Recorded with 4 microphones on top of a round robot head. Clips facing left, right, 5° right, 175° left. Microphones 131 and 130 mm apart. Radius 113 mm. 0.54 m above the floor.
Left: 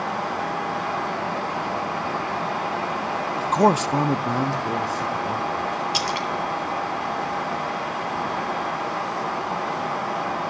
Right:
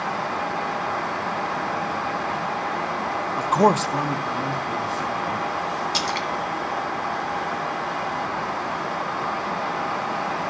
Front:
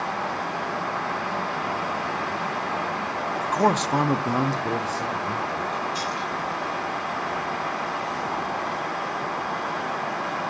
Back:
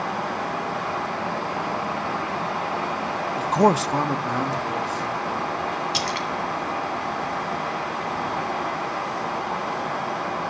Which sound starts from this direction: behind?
A splash, at 5.9 s.